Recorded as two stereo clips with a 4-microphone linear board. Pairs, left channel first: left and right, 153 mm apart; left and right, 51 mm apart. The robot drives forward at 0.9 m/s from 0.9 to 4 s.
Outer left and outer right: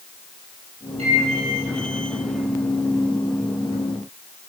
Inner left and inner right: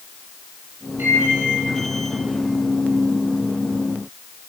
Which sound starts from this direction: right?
A microwave, at 1.0 s.